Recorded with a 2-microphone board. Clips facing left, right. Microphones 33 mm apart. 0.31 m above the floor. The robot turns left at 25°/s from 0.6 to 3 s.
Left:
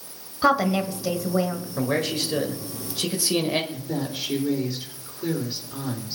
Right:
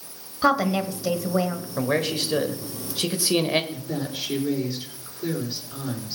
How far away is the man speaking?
About 1.5 m.